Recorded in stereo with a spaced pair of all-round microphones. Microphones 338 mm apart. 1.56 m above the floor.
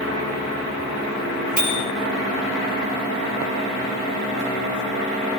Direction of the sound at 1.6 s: 30° left (ahead or behind).